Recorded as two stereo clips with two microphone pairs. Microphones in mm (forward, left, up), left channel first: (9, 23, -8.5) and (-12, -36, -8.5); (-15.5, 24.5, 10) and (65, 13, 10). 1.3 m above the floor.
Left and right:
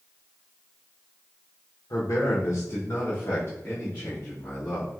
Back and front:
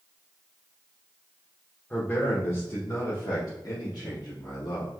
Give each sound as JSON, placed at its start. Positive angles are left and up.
{"t": 1.9, "sound": "a man speaking", "azimuth_deg": 100, "distance_m": 1.2}